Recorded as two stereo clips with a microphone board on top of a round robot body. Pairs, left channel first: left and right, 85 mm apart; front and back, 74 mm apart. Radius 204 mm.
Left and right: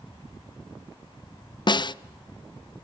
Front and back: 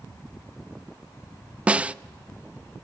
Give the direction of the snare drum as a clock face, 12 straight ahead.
8 o'clock.